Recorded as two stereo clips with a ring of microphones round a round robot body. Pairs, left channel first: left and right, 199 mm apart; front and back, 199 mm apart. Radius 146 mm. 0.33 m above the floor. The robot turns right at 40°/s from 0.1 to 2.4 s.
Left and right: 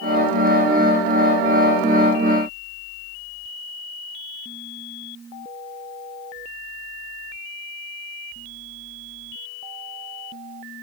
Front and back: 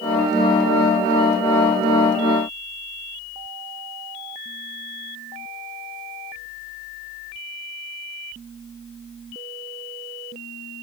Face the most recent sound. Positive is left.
No sound to turn to.